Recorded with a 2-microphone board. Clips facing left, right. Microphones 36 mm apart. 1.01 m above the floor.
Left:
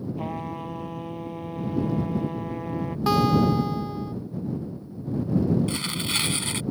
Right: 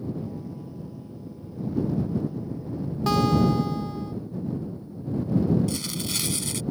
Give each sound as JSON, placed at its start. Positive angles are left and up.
{"t": 0.2, "sound": "a trumpet", "side_deg": 65}
{"t": 3.1, "sound": "a guitar", "side_deg": 10}
{"t": 5.7, "sound": "tearing paper", "side_deg": 40}